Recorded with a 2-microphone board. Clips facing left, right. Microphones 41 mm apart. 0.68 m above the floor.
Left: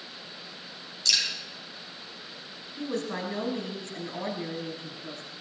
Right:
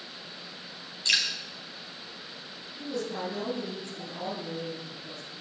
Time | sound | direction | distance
1.1 | dripping | 30° right (ahead or behind) | 4.5 m
2.8 | a woman speaking | 65° left (ahead or behind) | 5 m